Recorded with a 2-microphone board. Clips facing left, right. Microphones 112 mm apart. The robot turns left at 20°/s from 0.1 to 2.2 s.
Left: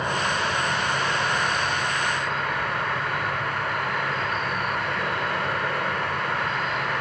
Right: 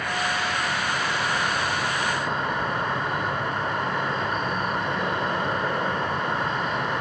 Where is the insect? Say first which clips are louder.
Left 2 dB; 25° left, 1.0 m; by 7.0 s 20° right, 1.0 m.